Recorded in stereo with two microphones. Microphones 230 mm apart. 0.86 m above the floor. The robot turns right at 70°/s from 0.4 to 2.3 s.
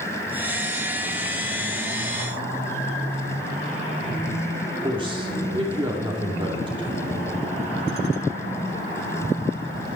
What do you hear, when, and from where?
4.8 s a man speaking: 20° right (ahead or behind), 2.5 m